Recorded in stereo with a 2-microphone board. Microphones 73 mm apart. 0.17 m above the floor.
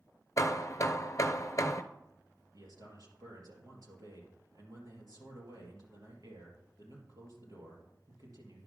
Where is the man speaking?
65° right (ahead or behind), 3 m.